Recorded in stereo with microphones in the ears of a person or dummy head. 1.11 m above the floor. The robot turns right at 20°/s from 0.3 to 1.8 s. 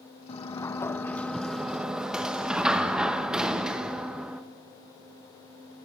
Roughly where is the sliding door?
Behind left.